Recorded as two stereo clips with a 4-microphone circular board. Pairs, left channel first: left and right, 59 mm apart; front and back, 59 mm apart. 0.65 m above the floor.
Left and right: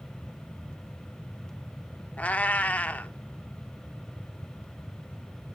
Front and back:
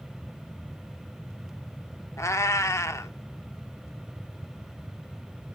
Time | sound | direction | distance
2.2 | a cat meowing | 25° left | 0.5 m